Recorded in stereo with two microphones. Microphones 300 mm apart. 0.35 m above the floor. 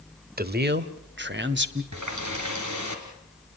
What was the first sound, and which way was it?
A man speaking, 30° right (ahead or behind).